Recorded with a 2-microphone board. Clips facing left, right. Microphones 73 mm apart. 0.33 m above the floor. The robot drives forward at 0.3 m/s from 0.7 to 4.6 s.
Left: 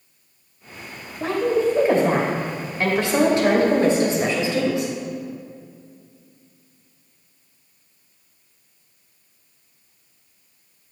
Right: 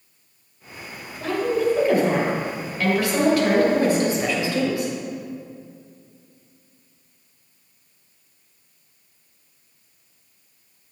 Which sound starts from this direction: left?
A woman speaking, at 1.2 s.